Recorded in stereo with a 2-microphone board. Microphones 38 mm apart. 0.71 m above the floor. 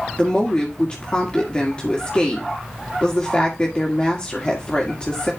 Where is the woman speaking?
25° left (ahead or behind), 1.8 m.